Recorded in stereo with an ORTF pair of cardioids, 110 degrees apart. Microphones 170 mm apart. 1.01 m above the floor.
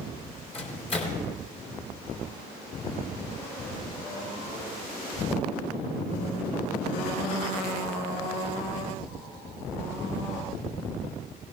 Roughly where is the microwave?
Ahead left.